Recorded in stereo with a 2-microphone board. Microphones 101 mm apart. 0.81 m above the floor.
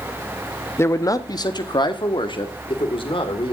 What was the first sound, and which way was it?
A man speaking, 25° left (ahead or behind).